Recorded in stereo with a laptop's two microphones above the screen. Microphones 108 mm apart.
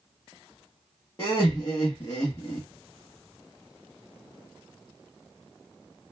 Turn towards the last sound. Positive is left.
turn(degrees=30)  # may be behind; listen again after turning